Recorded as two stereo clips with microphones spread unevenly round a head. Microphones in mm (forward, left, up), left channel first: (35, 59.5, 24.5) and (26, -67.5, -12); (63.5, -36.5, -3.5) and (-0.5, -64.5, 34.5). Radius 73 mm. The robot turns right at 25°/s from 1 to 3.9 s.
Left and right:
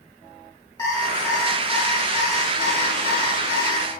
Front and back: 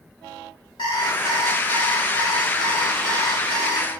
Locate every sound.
0.8 s an alarm clock: 20° left, 3.5 m; by 3.9 s 95° left, 3.5 m